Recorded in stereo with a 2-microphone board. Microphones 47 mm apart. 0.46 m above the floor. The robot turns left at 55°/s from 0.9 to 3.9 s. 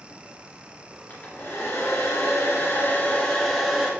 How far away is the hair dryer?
About 3 m.